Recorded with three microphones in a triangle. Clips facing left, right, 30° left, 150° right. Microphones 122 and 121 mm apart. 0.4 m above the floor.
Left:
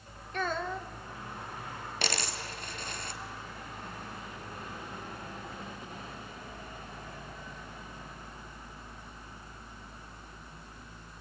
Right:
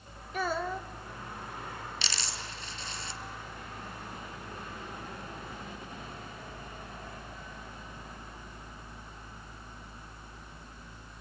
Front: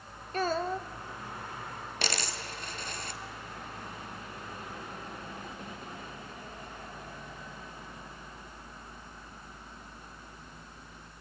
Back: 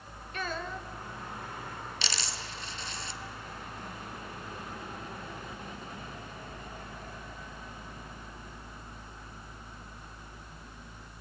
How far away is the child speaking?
About 0.8 m.